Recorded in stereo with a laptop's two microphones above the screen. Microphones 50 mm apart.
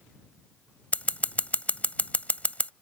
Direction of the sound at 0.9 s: 30° left (ahead or behind).